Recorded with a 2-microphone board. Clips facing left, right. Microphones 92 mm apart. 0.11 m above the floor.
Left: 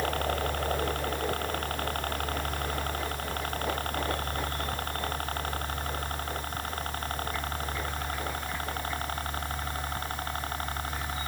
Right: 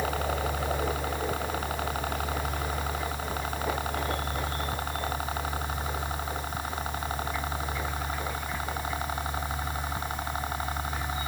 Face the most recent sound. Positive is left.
turn(degrees=-10)  # may be behind; listen again after turning